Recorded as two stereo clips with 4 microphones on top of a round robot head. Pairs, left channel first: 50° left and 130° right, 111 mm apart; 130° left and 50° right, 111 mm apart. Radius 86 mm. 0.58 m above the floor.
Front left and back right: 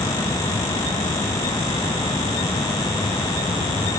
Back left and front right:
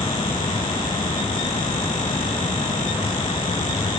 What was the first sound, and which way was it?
Only background noise.